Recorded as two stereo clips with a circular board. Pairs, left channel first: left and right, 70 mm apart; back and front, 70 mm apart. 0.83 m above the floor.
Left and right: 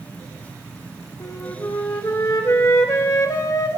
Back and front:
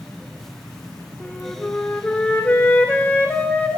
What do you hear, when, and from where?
1.2 s a flute: 115° left, 1.0 m